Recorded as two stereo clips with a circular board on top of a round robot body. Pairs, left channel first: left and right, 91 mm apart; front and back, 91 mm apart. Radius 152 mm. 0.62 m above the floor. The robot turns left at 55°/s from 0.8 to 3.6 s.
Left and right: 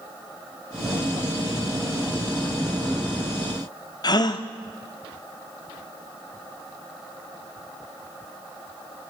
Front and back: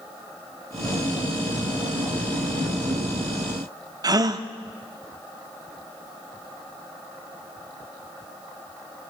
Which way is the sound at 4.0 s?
135° left.